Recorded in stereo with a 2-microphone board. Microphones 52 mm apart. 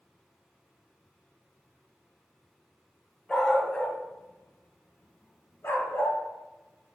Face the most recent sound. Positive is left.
turn(degrees=55)  # may be behind; listen again after turning